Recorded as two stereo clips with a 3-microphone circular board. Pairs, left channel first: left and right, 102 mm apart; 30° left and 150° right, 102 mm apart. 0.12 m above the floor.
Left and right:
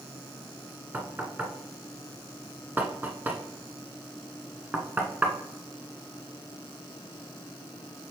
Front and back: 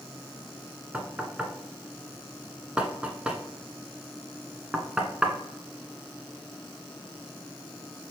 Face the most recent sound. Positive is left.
turn(degrees=-95)